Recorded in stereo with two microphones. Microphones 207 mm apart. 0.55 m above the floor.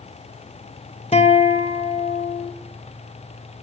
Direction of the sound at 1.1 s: 30° left (ahead or behind).